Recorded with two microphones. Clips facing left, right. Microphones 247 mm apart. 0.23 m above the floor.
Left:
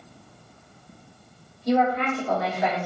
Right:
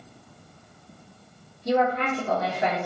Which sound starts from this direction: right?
A woman speaking, at 1.6 s.